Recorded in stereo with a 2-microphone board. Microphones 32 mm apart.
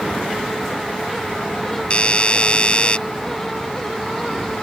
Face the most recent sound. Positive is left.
turn(degrees=35)  # may be behind; listen again after turning